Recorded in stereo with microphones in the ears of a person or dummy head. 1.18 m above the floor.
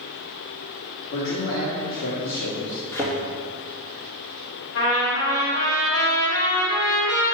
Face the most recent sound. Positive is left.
turn(degrees=75)  # may be behind; listen again after turning